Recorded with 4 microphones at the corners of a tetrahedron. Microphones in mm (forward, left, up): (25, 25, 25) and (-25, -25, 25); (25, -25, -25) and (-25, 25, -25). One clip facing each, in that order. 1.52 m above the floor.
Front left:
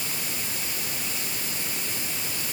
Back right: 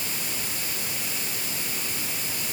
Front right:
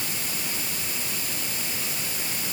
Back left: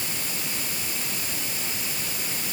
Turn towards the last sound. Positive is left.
No sound to turn to.